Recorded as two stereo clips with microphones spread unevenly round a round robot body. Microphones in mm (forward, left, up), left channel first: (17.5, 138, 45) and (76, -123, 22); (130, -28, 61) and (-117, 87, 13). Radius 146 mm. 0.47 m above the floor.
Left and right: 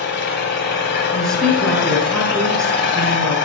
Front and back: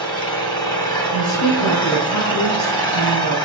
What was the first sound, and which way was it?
An engine running, 55° left.